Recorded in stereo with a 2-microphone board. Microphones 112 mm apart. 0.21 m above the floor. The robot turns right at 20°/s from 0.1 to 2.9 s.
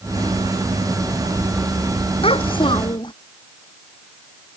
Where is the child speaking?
55° left (ahead or behind); by 3.1 s 45° left (ahead or behind).